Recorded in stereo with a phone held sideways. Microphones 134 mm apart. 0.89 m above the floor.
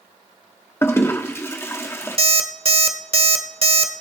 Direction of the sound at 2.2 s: 45° right (ahead or behind).